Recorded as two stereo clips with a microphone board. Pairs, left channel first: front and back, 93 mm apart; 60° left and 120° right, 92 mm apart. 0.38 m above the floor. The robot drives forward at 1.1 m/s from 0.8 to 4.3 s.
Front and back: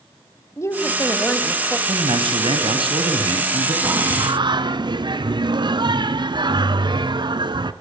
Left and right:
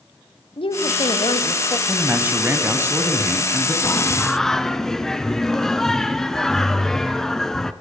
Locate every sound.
0.6 s a woman speaking: 55° left, 2.0 m; by 1.8 s 90° left, 1.7 m
1.9 s a man speaking: 170° left, 2.5 m; by 3.7 s 175° left, 4.5 m
3.8 s singing: 115° left, 0.6 m; by 7.7 s 145° left, 0.9 m